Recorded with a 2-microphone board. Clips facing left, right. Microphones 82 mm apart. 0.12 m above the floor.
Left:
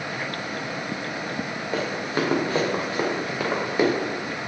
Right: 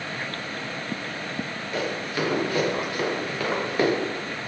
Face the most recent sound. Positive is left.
turn(degrees=10)  # may be behind; listen again after turning